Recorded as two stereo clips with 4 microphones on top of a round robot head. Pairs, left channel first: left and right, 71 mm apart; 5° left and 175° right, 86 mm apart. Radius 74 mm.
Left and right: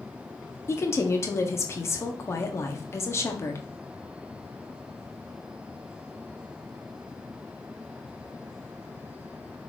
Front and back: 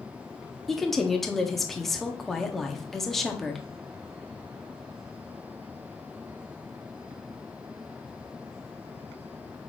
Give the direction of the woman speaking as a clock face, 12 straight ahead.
9 o'clock.